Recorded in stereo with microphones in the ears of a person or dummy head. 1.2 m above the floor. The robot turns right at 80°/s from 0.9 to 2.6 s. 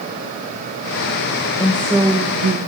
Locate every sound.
1.6 s a woman speaking: 160° left, 1.1 m; by 2.6 s 120° right, 1.1 m